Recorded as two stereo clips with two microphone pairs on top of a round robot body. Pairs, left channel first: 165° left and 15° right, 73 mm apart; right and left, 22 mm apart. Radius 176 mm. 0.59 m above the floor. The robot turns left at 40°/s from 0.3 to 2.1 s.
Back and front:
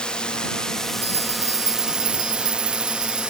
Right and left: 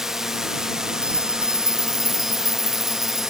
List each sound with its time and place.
0.0 s a drone: 140° left; by 3.3 s 65° left
1.0 s a bell: 55° left; by 3.3 s 10° left